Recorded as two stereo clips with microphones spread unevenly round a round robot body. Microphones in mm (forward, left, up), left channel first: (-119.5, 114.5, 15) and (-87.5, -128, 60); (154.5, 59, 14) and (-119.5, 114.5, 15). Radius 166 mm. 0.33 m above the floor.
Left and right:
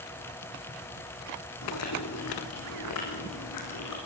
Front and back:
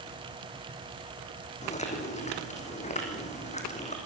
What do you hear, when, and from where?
1.6 s chewing: 55° left, 5 m